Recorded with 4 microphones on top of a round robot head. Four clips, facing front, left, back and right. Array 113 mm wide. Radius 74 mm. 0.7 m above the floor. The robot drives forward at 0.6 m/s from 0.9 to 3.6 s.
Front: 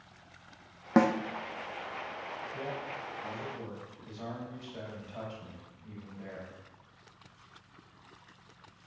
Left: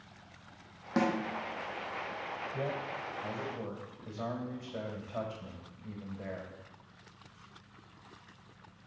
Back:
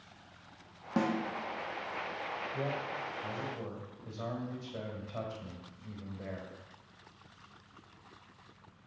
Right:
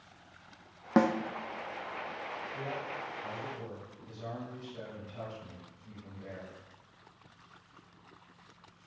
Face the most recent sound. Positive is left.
turn(degrees=120)